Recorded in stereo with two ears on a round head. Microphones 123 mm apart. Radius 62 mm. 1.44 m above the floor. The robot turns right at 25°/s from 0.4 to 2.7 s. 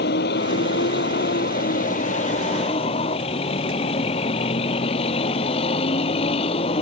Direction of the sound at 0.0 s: 80° left.